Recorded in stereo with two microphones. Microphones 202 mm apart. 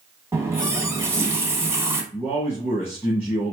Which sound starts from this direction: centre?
A running tap, at 0.3 s.